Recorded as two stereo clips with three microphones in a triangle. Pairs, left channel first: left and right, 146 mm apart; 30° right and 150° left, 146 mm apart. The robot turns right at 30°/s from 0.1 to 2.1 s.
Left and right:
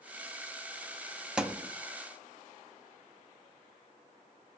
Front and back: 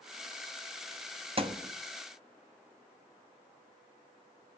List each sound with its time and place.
1.4 s a thud: 170° right, 0.7 m; by 1.7 s 160° right, 0.7 m